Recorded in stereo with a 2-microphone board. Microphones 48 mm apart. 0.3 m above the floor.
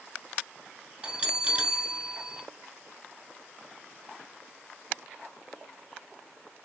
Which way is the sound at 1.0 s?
30° right (ahead or behind).